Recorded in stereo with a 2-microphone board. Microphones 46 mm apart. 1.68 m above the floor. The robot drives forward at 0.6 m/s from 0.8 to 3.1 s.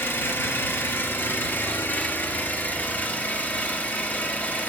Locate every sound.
0.0 s an engine running: 55° left (ahead or behind), 2.5 m; by 4.7 s 35° left (ahead or behind), 3 m